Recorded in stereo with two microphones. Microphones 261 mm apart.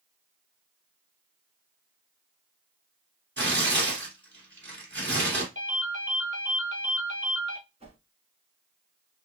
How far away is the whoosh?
About 1.4 m.